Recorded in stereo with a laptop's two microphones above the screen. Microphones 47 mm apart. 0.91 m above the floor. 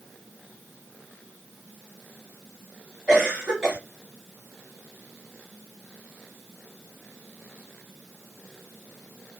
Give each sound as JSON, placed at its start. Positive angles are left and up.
{"t": 3.1, "sound": "a cough", "side_deg": -15, "distance_m": 2.0}